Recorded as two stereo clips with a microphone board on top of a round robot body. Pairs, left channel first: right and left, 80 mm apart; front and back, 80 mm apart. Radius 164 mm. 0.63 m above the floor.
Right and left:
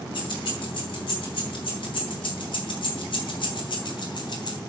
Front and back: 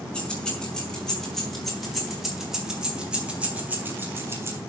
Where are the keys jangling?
75° right, 5.5 m; by 4.6 s 125° right, 3 m.